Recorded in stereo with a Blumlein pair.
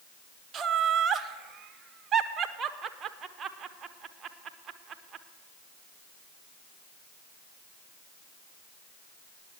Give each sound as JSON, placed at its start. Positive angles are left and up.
{"t": 0.5, "sound": "laughter", "azimuth_deg": -20, "distance_m": 0.9}